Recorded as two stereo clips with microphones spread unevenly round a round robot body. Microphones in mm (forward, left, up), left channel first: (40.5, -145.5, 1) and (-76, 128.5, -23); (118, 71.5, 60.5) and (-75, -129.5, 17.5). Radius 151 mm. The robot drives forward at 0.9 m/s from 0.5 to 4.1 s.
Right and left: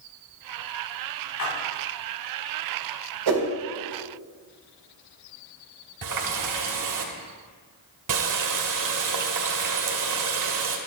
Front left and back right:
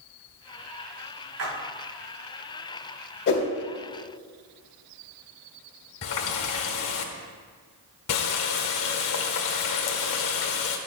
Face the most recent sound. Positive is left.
turn(degrees=90)